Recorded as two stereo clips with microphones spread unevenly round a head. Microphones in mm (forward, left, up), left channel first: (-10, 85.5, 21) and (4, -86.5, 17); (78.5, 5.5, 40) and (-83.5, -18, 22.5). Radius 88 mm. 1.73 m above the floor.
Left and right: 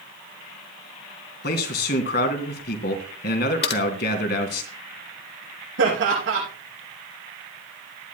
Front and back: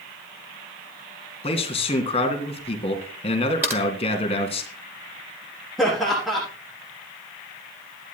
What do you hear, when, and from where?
1.4 s a man speaking: 65° left, 2.5 m
3.6 s typing on a keyboard: 110° left, 1.2 m
5.8 s laughter: 85° right, 6.5 m